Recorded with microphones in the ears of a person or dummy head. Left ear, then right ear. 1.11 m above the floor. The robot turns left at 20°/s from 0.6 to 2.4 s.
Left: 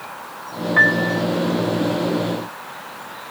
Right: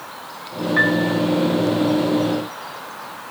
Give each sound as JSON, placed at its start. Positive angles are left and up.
{"t": 0.8, "sound": "a piano", "side_deg": 15, "distance_m": 0.8}